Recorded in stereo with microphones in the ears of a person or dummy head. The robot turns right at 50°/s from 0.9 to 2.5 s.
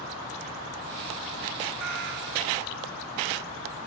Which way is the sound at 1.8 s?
110° right.